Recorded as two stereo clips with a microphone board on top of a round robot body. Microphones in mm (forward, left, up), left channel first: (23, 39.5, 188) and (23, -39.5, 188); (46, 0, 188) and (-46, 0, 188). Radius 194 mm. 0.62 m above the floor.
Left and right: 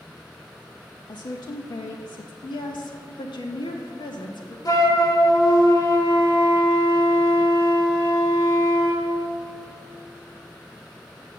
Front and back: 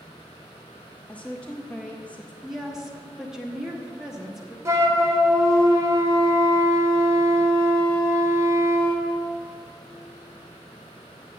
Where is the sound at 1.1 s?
75° left, 0.8 m.